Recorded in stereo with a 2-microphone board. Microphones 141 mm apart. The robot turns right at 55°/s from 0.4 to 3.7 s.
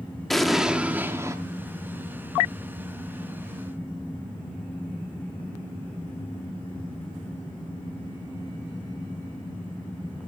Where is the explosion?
Centre (ahead or behind), 0.8 m; by 1.4 s 20° right (ahead or behind), 0.8 m.